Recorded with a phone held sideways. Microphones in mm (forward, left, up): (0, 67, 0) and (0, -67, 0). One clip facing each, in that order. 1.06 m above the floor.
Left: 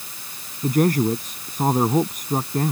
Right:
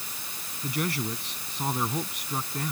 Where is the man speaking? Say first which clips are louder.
Left 12 dB; 45° left (ahead or behind).